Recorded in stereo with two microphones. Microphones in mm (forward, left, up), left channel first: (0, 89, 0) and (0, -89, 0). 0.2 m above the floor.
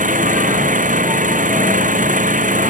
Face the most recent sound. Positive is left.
turn(degrees=-45)  # may be behind; listen again after turning